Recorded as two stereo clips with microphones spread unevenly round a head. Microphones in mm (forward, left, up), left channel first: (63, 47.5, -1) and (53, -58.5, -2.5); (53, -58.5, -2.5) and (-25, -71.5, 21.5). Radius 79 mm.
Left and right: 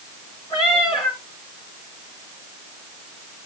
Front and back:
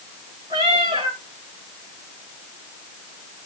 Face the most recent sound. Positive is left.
turn(degrees=145)